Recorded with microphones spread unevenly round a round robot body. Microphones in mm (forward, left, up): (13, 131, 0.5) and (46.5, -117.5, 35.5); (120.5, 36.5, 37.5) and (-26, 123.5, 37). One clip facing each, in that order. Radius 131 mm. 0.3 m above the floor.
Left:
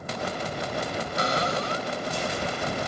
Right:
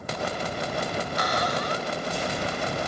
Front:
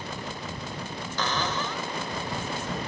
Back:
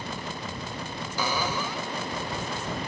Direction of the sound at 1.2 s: 75° left.